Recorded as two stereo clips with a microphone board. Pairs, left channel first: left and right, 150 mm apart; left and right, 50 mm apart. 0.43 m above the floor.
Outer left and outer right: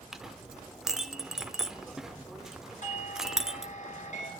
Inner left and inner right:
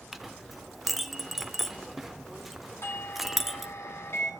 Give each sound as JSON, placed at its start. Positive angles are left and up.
{"t": 0.1, "sound": "a clink", "side_deg": -5, "distance_m": 0.9}
{"t": 2.8, "sound": "a doorbell", "side_deg": 55, "distance_m": 2.5}